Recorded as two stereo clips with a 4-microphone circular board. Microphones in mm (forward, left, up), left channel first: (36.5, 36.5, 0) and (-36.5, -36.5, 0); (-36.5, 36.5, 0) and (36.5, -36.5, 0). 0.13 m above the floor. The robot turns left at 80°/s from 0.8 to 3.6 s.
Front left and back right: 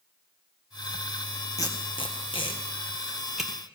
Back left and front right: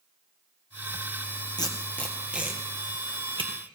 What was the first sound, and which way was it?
Tape being pulled, 95° left.